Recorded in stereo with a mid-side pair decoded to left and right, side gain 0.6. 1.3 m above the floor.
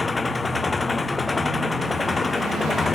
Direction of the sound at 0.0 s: 20° left.